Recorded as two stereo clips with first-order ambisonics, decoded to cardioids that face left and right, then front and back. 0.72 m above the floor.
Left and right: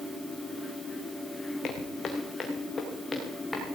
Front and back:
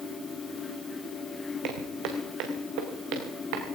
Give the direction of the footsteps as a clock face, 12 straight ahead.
7 o'clock.